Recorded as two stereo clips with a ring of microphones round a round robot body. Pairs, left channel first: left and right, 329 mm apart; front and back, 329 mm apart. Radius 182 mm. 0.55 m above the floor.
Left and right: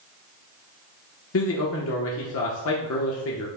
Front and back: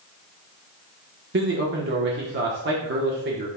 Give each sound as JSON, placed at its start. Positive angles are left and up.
{"t": 1.3, "sound": "a man speaking", "azimuth_deg": 130, "distance_m": 1.0}